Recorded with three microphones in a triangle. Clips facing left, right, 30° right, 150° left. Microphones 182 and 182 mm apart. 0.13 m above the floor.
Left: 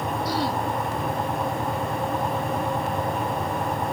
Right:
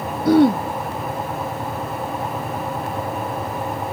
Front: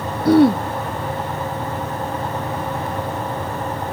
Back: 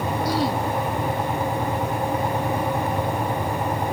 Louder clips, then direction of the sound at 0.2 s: Right 16 dB, front 14 dB; 60° right.